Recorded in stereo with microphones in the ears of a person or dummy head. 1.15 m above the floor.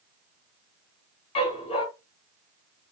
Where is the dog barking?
35° left (ahead or behind), 3.5 m.